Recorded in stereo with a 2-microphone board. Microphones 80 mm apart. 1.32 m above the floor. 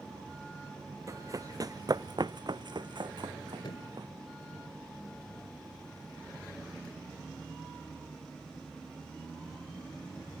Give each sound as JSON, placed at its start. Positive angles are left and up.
{"t": 1.1, "sound": "running footsteps", "side_deg": -40}
{"t": 3.6, "sound": "a thud", "side_deg": 75}